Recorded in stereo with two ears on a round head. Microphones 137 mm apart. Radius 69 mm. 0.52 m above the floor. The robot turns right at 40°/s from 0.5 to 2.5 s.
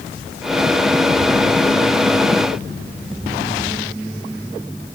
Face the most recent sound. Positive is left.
No sound to turn to.